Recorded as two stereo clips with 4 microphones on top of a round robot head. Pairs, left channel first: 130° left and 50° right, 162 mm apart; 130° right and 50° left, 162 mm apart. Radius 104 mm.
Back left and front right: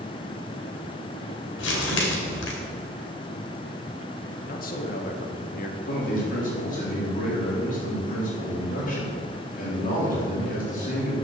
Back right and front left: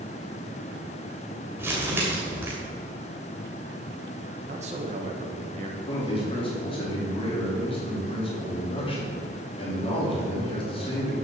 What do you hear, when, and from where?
1.6 s crumpling: 125° left, 2.5 m
4.5 s a man speaking: 100° left, 1.6 m
5.9 s a man speaking: 170° left, 4 m